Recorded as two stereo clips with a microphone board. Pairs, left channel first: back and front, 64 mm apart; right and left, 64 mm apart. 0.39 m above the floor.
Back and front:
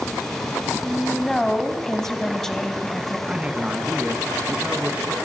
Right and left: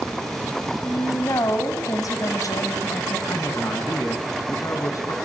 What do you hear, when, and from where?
0.8 s a woman speaking: 95° right, 3 m
3.3 s a man speaking: 65° right, 4 m